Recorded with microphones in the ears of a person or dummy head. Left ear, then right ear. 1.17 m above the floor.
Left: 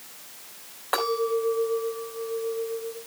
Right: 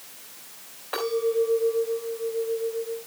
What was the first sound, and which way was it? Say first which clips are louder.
A clink: even; 40° left (ahead or behind).